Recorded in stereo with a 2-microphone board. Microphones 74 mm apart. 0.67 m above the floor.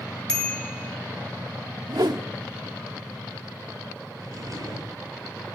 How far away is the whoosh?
About 0.9 m.